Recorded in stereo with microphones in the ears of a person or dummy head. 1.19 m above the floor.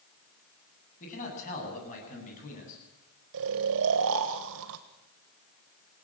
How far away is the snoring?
About 1.5 m.